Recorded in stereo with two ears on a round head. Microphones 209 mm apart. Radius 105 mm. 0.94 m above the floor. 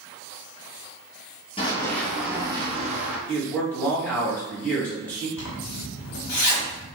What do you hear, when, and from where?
1.6 s running footsteps: 25° left (ahead or behind), 1.0 m; by 3.2 s 40° right (ahead or behind), 1.4 m
3.3 s a man speaking: 10° left (ahead or behind), 1.4 m
5.4 s a zipper: 70° left (ahead or behind), 1.8 m